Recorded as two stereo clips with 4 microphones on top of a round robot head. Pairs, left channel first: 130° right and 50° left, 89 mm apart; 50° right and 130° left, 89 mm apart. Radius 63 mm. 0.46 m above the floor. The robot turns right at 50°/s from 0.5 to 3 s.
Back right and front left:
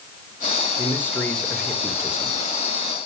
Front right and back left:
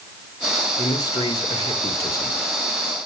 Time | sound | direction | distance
0.8 | a man speaking | 85° right | 2.0 m